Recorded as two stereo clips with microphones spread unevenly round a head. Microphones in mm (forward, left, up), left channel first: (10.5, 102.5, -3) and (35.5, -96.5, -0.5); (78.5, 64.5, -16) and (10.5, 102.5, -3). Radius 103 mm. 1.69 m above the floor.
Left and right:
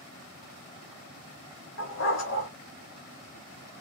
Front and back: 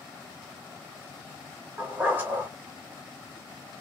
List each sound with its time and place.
1.8 s a dog barking: 95° left, 2.5 m